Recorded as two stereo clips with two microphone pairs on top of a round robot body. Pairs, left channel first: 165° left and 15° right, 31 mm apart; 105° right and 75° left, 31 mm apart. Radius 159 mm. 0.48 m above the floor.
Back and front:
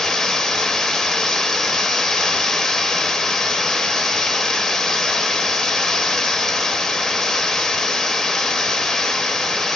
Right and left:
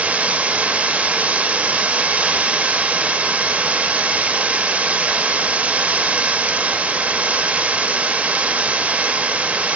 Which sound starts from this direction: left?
Running water, at 0.0 s.